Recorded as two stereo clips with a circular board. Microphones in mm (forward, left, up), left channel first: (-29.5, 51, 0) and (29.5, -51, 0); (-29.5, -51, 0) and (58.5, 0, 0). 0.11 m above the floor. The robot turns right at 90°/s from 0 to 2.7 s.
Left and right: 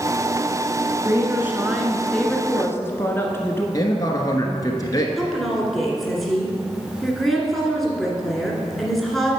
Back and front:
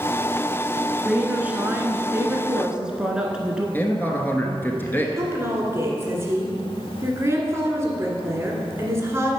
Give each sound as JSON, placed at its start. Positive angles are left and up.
{"t": 1.1, "sound": "a woman speaking", "azimuth_deg": -50, "distance_m": 1.1}
{"t": 3.7, "sound": "a man speaking", "azimuth_deg": 150, "distance_m": 1.3}
{"t": 5.2, "sound": "a woman speaking", "azimuth_deg": 30, "distance_m": 1.7}